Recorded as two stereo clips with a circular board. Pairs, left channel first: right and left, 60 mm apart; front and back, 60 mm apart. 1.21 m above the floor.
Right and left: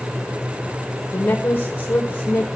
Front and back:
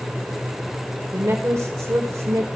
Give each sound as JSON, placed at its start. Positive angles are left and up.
{"t": 1.1, "sound": "a woman speaking", "azimuth_deg": -150, "distance_m": 1.5}